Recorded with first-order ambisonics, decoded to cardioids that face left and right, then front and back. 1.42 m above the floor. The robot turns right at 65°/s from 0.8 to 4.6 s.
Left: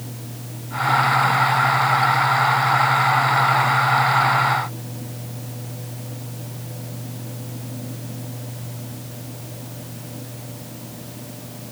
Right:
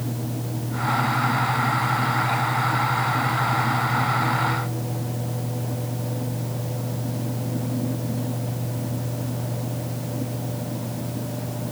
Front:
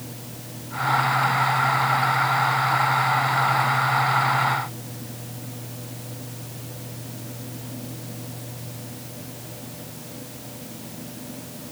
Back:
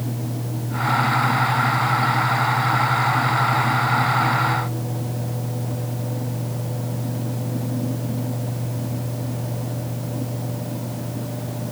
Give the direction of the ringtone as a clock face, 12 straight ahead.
I don't hear a ringtone.